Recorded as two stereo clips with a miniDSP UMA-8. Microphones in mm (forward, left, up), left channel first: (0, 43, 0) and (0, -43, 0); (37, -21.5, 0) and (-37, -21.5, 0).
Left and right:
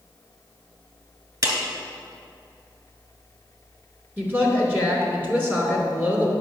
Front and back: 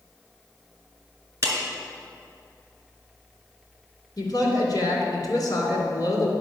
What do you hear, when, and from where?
1.4 s a clap: 130° right, 2.5 m
4.2 s a woman speaking: 25° right, 2.5 m